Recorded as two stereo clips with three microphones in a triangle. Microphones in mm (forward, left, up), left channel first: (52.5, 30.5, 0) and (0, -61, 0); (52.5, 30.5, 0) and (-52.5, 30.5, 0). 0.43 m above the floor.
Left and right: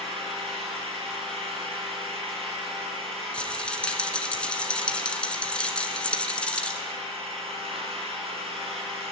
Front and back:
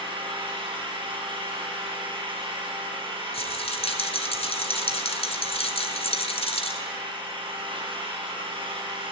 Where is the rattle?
20° right, 1.9 m.